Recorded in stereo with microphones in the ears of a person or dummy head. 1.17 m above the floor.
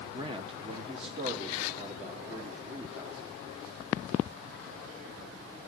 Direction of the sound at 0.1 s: 25° right (ahead or behind).